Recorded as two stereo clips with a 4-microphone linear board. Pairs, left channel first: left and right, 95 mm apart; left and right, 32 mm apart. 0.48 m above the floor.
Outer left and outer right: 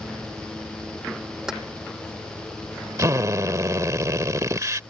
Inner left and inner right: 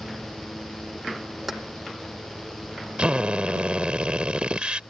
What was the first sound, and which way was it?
Keys jangling, 5° right (ahead or behind).